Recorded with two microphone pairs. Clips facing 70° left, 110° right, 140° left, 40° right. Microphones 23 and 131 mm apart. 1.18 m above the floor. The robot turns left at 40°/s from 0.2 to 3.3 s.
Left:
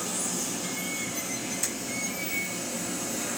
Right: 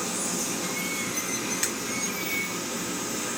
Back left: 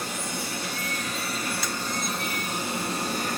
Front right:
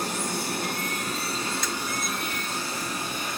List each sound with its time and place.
0.0 s running water: 55° right, 3.5 m; by 3.4 s straight behind, 3.5 m
1.6 s breaking glass: 135° right, 3 m; by 1.7 s 140° right, 3 m